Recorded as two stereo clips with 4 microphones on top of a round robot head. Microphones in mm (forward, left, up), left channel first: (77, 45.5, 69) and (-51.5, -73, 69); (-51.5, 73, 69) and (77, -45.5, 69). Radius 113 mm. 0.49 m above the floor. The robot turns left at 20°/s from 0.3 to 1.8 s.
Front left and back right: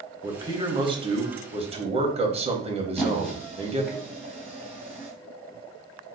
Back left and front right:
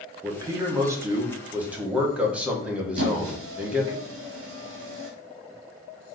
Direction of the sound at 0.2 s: 90° right.